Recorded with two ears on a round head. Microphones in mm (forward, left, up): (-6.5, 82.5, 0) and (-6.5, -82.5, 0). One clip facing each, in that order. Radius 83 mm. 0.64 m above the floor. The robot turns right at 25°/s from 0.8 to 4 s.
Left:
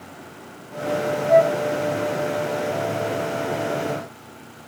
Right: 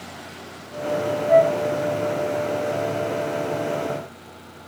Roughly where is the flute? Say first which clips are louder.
Even; centre.